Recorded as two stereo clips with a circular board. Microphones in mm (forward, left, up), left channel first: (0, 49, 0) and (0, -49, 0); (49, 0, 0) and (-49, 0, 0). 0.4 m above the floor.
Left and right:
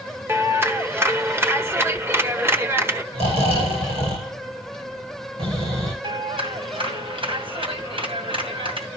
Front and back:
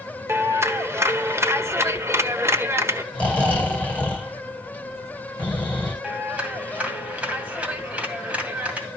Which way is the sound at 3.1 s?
75° right.